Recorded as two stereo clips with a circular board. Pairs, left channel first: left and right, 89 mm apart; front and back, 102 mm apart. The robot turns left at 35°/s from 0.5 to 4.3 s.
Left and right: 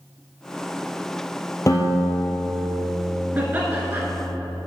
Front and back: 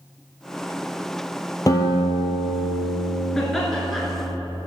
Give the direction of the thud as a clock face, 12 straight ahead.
I don't hear a thud.